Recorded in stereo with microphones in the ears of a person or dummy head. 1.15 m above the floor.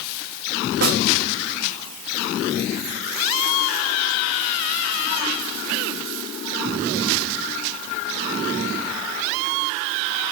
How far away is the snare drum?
About 2.5 m.